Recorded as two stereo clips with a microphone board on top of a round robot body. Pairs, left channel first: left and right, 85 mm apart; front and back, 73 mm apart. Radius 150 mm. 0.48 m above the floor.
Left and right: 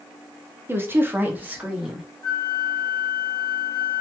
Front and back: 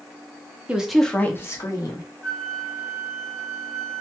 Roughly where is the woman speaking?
Behind right.